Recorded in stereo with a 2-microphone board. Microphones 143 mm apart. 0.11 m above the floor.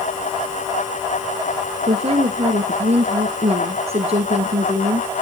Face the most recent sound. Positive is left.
turn(degrees=-45)  # may be behind; listen again after turning